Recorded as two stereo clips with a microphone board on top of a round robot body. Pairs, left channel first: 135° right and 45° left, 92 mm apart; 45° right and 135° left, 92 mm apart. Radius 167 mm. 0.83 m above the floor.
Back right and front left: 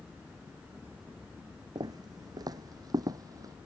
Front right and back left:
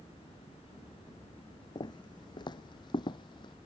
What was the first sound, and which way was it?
Footsteps, straight ahead.